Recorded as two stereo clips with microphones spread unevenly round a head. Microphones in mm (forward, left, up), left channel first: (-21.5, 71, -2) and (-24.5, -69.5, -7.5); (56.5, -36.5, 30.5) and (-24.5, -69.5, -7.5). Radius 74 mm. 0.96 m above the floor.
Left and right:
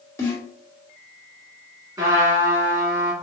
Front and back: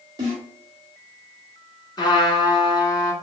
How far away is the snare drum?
About 1.4 m.